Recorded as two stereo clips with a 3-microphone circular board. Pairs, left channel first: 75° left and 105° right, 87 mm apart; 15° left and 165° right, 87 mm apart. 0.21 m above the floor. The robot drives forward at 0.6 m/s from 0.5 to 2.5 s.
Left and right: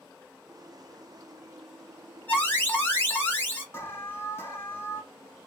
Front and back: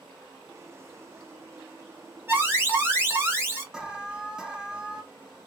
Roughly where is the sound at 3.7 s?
Behind left.